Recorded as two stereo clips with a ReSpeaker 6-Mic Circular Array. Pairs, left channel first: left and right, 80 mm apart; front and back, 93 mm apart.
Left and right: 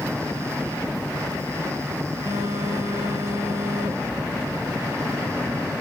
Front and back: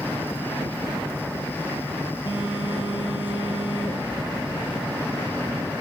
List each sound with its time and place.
2.3 s a phone buzzing: 40° right, 5 m